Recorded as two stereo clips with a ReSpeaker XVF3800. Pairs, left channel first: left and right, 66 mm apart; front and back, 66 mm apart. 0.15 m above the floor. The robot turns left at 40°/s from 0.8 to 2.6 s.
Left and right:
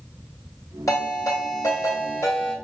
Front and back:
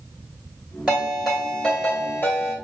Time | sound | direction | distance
0.9 | a ringtone | 105° left | 2.0 m